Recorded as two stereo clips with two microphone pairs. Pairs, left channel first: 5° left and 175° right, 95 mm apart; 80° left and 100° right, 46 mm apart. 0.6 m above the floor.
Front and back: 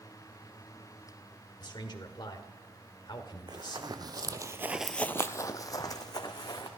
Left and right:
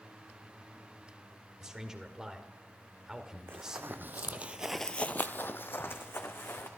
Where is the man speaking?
25° right, 1.9 m.